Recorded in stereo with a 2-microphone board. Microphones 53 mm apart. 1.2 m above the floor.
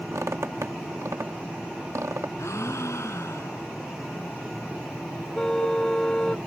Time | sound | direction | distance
0.1 | a squeak | 75° right (ahead or behind) | ?
2.4 | a gasp | 70° left (ahead or behind) | ?
5.3 | a car horn | 15° left (ahead or behind) | ?